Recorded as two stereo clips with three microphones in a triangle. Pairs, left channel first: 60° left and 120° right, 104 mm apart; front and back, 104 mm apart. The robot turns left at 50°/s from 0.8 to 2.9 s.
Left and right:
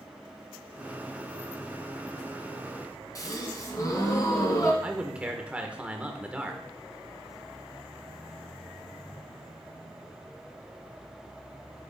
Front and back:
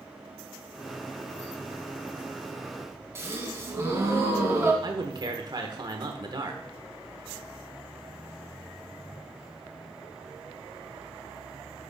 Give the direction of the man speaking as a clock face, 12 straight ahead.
6 o'clock.